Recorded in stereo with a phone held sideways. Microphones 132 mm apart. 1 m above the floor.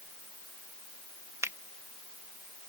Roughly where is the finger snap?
Right.